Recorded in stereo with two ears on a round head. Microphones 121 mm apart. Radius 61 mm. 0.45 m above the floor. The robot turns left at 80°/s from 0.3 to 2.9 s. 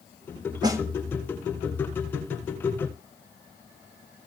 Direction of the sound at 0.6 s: 30° right (ahead or behind).